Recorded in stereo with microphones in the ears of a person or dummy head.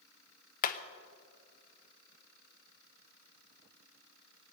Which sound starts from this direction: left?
Hammering, at 0.6 s.